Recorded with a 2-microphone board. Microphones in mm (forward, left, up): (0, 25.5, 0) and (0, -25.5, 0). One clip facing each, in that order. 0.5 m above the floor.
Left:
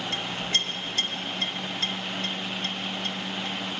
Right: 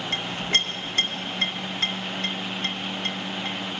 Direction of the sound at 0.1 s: 45° right (ahead or behind).